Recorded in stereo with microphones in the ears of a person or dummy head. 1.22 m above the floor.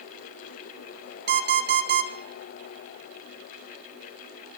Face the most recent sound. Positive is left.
turn(degrees=-65)  # may be behind; listen again after turning